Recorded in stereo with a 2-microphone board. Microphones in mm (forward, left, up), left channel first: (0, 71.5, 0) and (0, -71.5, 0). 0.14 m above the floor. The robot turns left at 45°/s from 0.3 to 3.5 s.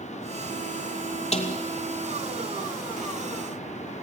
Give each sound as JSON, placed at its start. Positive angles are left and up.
{"t": 1.3, "sound": "a snare drum", "side_deg": 50, "distance_m": 2.5}